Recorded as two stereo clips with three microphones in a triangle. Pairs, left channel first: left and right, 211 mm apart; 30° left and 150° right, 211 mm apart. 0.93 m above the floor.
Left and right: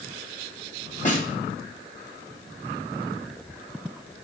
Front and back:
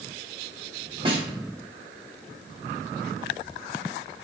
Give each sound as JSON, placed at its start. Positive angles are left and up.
{"t": 1.1, "sound": "a snare drum", "azimuth_deg": 145, "distance_m": 1.0}